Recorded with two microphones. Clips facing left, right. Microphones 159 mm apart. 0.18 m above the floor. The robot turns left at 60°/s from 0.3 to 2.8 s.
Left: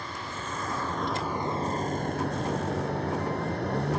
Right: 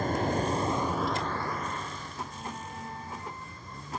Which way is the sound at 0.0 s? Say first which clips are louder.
Right 10 dB; 130° right.